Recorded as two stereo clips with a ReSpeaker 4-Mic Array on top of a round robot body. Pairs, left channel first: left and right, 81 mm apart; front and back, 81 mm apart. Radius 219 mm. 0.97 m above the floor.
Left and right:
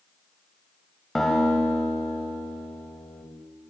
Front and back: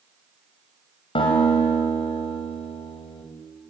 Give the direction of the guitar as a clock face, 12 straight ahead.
12 o'clock.